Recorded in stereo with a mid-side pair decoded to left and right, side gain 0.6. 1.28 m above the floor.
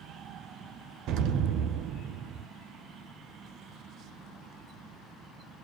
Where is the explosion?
60° right, 0.8 m.